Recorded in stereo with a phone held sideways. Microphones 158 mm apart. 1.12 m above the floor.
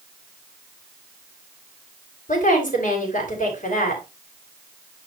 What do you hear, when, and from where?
2.3 s a woman speaking: 55° left (ahead or behind), 4.5 m